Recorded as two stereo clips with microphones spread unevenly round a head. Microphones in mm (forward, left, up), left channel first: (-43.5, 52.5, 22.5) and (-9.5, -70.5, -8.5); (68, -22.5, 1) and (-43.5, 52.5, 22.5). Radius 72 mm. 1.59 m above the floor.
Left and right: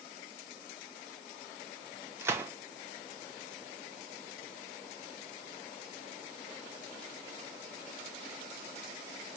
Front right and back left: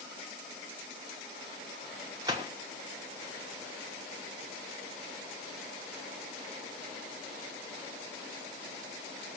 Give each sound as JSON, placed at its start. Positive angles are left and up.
{"t": 2.2, "sound": "a gunshot", "azimuth_deg": -150, "distance_m": 1.1}